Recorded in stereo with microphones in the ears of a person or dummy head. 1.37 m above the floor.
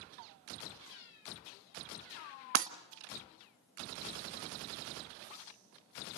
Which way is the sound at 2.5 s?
55° right (ahead or behind).